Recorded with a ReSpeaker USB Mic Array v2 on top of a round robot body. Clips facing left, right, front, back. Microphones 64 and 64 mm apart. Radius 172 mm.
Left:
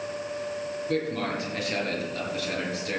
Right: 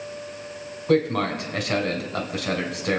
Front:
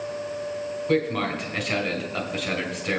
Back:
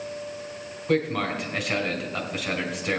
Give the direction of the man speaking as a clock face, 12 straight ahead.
3 o'clock.